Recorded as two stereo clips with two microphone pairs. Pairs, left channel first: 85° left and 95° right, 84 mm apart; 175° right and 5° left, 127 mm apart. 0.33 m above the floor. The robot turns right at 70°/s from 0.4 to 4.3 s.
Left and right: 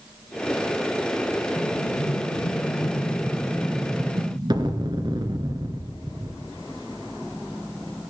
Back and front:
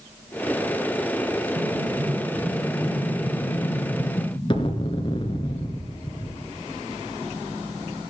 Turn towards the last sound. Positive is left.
turn(degrees=-125)